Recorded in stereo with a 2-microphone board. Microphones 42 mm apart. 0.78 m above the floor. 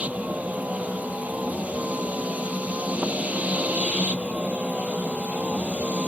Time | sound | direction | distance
0.0 | a vehicle | 30° right (ahead or behind) | ?